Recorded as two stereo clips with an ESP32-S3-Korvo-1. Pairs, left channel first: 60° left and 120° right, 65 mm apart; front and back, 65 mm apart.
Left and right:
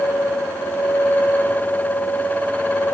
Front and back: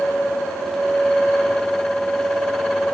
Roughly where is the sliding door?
No sliding door in this recording.